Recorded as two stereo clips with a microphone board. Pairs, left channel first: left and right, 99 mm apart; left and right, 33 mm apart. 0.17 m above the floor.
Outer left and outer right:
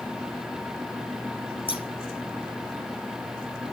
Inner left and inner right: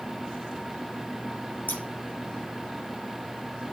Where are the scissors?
60° left (ahead or behind), 4 m.